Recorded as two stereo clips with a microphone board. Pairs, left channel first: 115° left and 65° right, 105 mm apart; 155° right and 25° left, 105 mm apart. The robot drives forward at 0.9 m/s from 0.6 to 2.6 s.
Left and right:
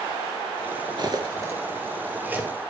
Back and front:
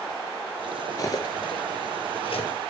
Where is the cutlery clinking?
105° right, 1.5 m; by 2.5 s 145° right, 2.5 m.